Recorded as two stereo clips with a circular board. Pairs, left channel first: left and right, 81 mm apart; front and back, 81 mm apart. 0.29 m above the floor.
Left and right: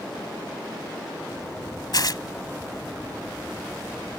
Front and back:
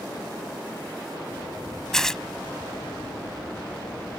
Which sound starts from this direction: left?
Tearing paper, at 1.9 s.